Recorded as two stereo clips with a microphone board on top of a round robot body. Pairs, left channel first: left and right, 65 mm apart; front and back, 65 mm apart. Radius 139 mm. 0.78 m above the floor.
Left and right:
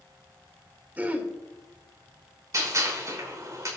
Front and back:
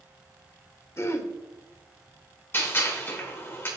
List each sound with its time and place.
1.0 s throat clearing: 30° right, 1.5 m
2.5 s a gunshot: 55° right, 5 m